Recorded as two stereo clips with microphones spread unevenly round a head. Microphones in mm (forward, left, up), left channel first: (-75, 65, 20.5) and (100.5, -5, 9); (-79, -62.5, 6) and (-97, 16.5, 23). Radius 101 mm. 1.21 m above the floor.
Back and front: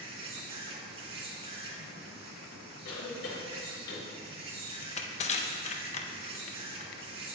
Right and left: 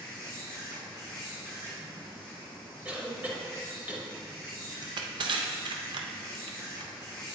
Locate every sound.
0.0 s an insect: 30° left, 1.6 m
2.9 s a cough: 175° left, 2.5 m
4.8 s crushing: 105° left, 0.7 m